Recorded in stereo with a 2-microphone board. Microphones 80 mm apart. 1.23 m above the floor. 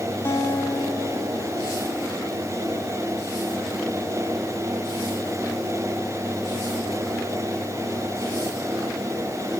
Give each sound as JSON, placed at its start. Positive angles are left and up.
{"t": 0.2, "sound": "a guitar", "side_deg": 30, "distance_m": 1.5}